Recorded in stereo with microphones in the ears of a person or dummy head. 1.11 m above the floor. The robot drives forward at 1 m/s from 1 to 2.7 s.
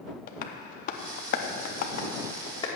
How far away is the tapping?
About 0.8 m.